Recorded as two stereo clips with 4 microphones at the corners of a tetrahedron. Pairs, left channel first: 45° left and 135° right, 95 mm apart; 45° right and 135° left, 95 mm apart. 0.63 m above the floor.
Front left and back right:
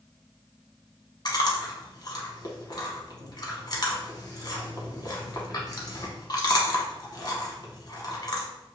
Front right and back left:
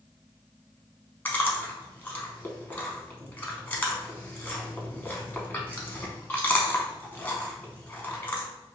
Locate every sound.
1.2 s chewing: 20° left, 0.7 m